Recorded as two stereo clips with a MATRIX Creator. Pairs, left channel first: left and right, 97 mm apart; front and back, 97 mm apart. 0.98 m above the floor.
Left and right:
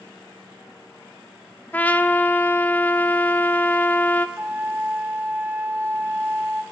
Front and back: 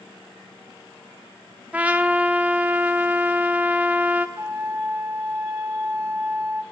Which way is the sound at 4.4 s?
145° right.